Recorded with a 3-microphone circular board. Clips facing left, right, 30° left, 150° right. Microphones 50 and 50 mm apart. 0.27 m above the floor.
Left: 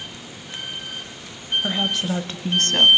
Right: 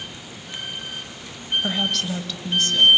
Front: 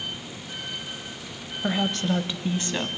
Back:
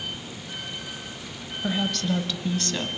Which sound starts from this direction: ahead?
A woman speaking, at 1.6 s.